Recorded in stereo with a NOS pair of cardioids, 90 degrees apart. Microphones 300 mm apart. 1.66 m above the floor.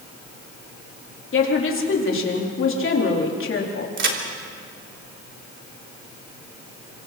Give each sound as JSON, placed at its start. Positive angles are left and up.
{"t": 1.3, "sound": "a woman speaking", "azimuth_deg": 45, "distance_m": 4.0}
{"t": 4.0, "sound": "a crack", "azimuth_deg": -45, "distance_m": 3.5}